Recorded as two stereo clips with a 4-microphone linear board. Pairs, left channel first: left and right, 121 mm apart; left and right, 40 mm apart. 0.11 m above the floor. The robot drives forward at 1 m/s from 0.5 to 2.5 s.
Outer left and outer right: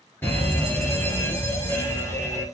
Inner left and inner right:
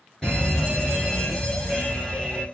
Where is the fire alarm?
20° left (ahead or behind), 2 m.